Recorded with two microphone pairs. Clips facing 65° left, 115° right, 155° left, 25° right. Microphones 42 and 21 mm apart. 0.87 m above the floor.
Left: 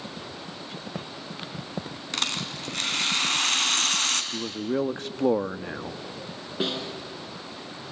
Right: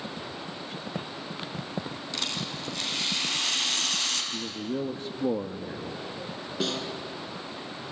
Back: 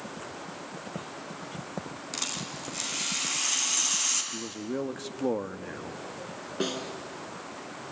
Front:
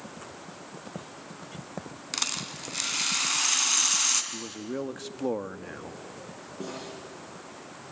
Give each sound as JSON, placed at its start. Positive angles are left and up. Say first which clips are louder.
{"t": 2.1, "sound": "a rattle", "louder": "left 4 dB, front 4 dB", "azimuth_deg": 35, "distance_m": 3.0}
{"t": 4.3, "sound": "a man speaking", "louder": "left 4 dB, back 1 dB", "azimuth_deg": 60, "distance_m": 0.9}
{"t": 6.6, "sound": "a snare drum", "louder": "left 2 dB, back 7 dB", "azimuth_deg": 135, "distance_m": 4.5}